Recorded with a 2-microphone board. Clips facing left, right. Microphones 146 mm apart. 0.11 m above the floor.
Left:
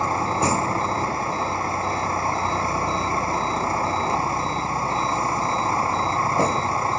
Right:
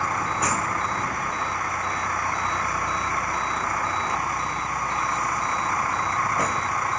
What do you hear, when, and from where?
0.0 s a vehicle: 30° left (ahead or behind)